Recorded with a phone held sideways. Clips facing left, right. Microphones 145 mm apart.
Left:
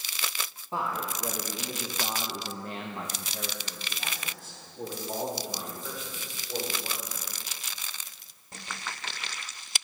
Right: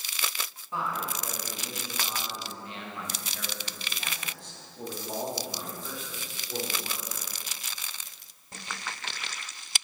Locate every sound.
0.7 s a man speaking: 30° left (ahead or behind), 1.4 m; by 7.3 s 5° right (ahead or behind), 3.5 m